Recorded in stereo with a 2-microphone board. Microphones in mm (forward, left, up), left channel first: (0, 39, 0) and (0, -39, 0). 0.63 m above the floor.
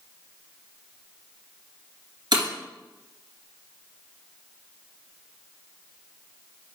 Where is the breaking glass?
70° right (ahead or behind), 2.5 m.